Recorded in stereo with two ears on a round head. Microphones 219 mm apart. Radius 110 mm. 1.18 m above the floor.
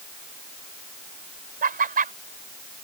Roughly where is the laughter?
Right.